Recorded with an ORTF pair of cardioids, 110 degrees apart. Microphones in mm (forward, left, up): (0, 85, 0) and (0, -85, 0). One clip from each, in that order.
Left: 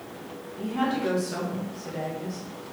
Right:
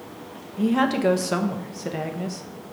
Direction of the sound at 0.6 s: 55° right.